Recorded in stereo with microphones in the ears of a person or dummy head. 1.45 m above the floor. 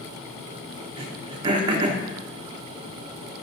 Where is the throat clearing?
30° right (ahead or behind), 0.8 m.